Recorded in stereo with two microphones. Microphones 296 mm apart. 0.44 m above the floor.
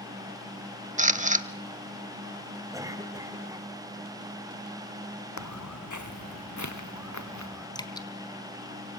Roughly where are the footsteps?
Left.